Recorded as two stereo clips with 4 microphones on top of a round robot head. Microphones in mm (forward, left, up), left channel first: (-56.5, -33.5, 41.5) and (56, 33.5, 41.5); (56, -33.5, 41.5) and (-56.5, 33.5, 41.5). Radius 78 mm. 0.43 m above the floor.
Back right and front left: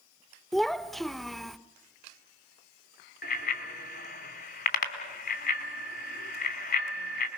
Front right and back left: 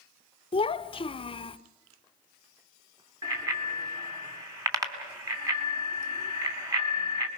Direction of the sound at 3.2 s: 145° right.